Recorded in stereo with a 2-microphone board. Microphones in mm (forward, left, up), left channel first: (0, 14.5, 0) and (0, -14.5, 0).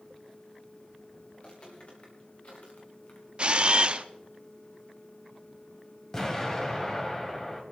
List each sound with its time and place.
1.3 s footsteps: 40° left (ahead or behind), 3.5 m; by 3.3 s 60° left (ahead or behind), 3 m
3.4 s a camera shutter: 40° right (ahead or behind), 0.6 m
6.1 s an explosion: 20° left (ahead or behind), 2.0 m